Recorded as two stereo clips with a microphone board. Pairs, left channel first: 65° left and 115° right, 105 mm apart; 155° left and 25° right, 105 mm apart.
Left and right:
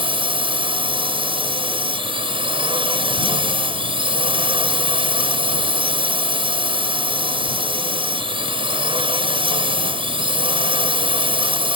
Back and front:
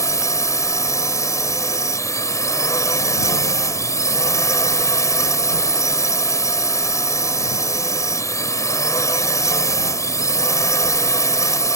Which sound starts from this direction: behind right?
A drone, at 0.0 s.